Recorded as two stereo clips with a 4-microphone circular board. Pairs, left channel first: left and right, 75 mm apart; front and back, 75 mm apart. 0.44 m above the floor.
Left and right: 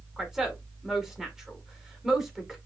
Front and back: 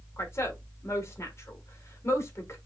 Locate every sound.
0.2 s a woman speaking: 10° right, 1.6 m